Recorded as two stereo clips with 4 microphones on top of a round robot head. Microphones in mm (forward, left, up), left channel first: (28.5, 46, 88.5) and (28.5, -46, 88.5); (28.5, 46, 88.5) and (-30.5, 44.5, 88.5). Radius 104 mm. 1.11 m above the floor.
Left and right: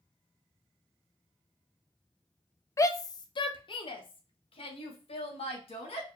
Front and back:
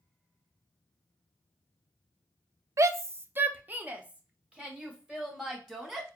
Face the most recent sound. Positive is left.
turn(degrees=100)